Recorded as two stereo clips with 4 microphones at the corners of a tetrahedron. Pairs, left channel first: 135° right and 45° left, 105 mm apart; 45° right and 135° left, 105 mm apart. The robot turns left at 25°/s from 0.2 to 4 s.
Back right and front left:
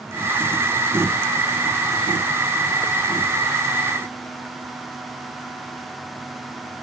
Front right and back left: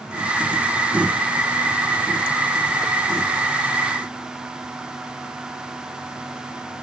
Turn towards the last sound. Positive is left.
No sound to turn to.